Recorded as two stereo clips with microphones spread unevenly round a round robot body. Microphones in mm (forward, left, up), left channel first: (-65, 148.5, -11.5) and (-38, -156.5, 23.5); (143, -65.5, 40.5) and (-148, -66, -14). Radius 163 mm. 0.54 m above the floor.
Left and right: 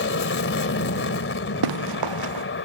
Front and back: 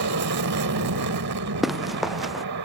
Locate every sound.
0.0 s an aircraft: 140° left
1.6 s running footsteps: 90° right